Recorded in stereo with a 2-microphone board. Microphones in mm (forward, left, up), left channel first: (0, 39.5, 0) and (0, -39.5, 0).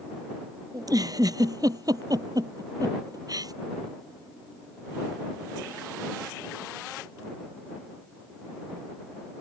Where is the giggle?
50° right (ahead or behind).